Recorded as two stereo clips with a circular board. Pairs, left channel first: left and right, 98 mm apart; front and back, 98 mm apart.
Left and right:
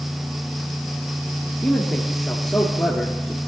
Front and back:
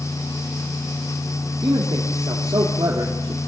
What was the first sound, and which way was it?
A man speaking, 170° left.